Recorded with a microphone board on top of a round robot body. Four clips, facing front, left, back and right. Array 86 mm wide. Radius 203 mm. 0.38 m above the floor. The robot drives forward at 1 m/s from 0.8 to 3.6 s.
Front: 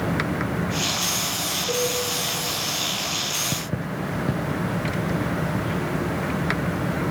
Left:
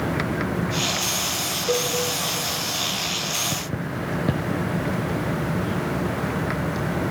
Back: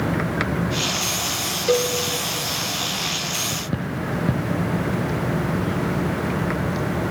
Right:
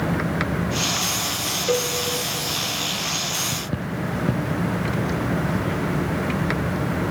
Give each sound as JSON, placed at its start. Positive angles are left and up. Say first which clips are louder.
{"t": 1.7, "sound": "a cowbell", "louder": "right 1 dB, back 6 dB", "azimuth_deg": -170, "distance_m": 0.9}